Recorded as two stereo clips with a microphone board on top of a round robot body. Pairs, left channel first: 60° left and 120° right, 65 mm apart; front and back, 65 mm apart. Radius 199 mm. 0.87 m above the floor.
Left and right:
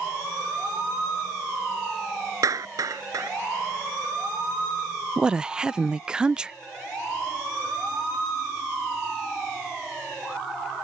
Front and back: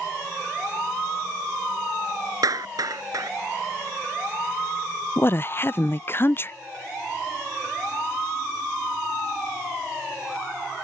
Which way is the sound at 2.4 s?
150° right.